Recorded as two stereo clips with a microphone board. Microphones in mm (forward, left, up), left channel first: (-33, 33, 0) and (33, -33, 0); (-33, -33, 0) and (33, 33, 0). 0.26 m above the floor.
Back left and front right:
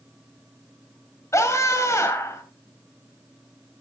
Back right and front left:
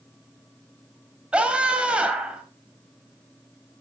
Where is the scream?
115° left, 1.7 m.